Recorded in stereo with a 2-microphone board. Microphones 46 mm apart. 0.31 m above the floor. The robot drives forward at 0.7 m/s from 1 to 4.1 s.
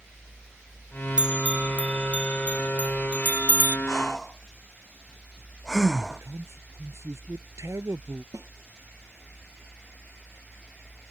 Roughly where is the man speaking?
Right.